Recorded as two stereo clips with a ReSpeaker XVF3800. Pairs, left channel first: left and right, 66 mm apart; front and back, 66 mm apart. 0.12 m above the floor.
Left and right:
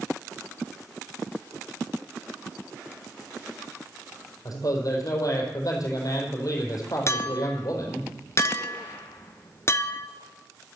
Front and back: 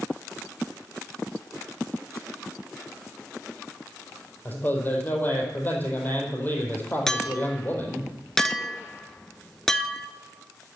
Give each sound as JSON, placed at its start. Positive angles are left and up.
{"t": 4.5, "sound": "a man speaking", "azimuth_deg": 60, "distance_m": 4.0}
{"t": 7.1, "sound": "a clink", "azimuth_deg": 80, "distance_m": 0.8}